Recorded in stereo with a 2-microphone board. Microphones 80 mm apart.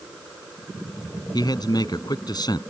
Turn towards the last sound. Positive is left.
turn(degrees=60)  # may be behind; listen again after turning